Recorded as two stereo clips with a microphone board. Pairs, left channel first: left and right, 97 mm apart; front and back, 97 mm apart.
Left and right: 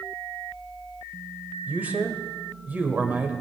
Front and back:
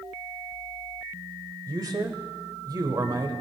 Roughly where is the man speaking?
Behind right.